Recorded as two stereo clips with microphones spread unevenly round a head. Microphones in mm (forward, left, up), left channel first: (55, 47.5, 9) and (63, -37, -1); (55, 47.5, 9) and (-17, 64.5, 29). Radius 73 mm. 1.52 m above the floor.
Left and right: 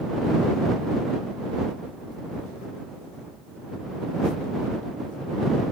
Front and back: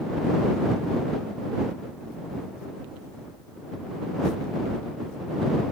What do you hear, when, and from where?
Only background noise.